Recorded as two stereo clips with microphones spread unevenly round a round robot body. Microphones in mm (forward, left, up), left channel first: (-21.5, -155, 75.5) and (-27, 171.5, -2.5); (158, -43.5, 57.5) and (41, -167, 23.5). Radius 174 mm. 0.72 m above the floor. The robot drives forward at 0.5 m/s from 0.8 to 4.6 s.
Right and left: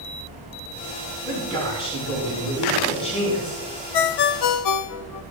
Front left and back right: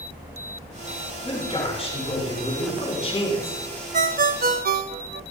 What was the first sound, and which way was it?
A man speaking, 10° right.